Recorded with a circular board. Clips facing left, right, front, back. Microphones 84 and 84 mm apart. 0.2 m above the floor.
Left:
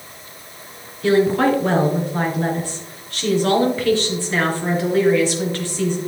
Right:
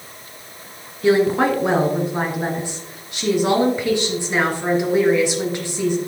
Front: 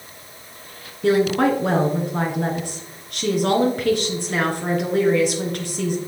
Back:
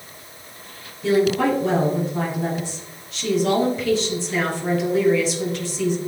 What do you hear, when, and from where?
1.0 s a woman speaking: 20° right, 2.5 m